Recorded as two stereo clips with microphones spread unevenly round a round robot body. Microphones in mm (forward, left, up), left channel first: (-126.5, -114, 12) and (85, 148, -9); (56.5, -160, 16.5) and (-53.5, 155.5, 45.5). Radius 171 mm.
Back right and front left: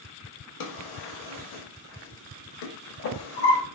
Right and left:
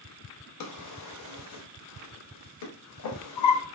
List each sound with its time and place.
0.6 s a drawer: 100° right, 0.5 m